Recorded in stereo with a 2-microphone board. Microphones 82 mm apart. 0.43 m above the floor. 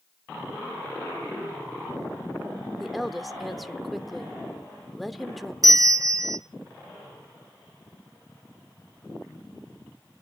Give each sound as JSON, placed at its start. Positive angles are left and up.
{"t": 2.8, "sound": "a woman speaking", "side_deg": 0, "distance_m": 0.9}
{"t": 5.6, "sound": "a bell", "side_deg": -45, "distance_m": 0.9}